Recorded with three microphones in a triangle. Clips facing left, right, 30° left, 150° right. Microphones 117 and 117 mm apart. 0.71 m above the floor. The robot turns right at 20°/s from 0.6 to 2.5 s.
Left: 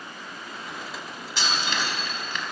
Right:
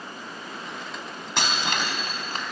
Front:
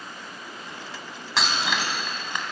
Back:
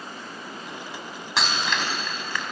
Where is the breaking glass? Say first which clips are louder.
Right 1 dB, even; 60° right, 3.5 m; by 2.4 s 40° right, 3.5 m.